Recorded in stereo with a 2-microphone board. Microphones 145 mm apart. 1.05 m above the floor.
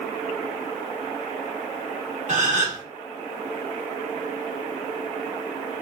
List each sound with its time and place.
2.3 s a gasp: 55° right (ahead or behind), 1.9 m